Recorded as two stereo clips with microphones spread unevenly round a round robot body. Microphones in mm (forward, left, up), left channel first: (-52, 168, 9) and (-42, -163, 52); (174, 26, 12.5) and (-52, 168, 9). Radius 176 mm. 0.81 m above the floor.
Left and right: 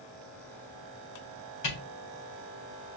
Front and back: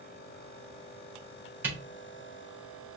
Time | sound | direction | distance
1.6 | a camera shutter | 65° left | 3 m